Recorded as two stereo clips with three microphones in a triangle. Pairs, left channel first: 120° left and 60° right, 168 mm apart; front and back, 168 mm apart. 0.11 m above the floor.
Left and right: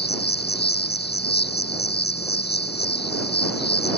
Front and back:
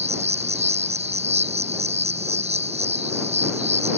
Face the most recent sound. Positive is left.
turn(degrees=130)